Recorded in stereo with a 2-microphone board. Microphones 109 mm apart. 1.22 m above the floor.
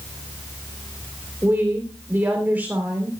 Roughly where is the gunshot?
No gunshot in this recording.